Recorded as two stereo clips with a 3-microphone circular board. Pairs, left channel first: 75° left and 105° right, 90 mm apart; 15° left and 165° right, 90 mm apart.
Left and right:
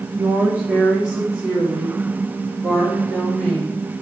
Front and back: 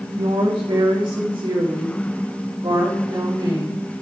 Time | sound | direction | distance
0.2 | a woman speaking | 170° right | 1.5 m